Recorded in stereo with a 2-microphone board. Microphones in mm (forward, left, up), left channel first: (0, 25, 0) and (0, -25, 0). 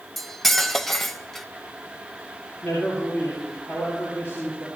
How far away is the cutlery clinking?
About 0.5 m.